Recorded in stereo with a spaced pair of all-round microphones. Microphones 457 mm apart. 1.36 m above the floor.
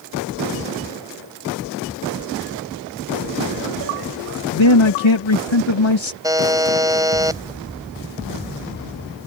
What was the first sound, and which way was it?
A man speaking, 80° left.